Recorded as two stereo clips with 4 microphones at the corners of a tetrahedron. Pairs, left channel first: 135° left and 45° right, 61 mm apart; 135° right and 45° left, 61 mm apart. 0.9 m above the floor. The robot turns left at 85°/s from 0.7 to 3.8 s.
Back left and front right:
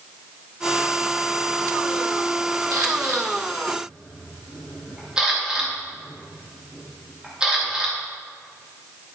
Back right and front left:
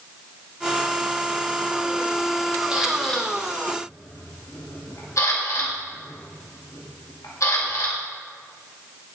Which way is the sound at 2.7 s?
25° right.